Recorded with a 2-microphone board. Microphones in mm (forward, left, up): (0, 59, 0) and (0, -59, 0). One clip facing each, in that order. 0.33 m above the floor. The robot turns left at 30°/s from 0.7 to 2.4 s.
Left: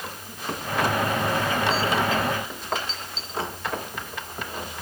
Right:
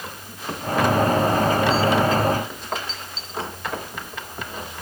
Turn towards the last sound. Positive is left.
No sound to turn to.